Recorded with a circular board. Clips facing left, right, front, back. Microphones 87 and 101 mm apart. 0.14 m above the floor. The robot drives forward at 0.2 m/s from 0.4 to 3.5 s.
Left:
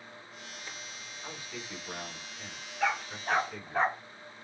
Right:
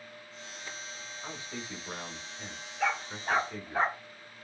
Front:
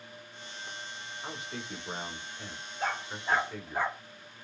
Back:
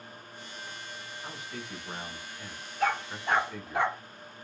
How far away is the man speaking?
About 1.2 m.